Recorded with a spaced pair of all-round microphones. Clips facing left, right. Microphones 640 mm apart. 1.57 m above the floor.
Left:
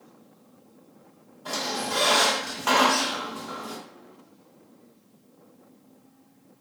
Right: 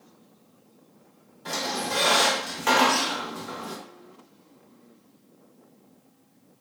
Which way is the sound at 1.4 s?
50° right (ahead or behind).